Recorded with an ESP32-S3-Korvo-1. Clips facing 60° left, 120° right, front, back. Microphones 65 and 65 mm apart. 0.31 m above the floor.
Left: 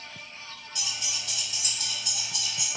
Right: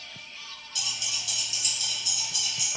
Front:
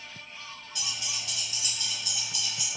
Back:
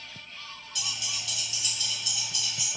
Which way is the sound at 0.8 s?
30° left.